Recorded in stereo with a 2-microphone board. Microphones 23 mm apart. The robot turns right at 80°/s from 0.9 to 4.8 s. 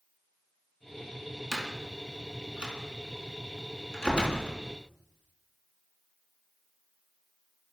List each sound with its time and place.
1.5 s a door slam: 10° right (ahead or behind), 4 m; by 4.6 s 75° left (ahead or behind), 4 m